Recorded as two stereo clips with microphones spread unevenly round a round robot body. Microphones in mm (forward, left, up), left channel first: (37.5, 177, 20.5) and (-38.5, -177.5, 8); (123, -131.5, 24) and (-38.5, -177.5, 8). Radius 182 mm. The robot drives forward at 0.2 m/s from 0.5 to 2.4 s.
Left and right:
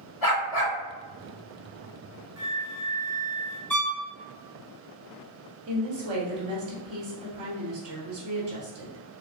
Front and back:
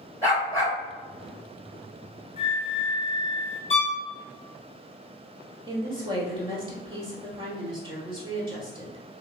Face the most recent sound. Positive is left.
turn(degrees=-125)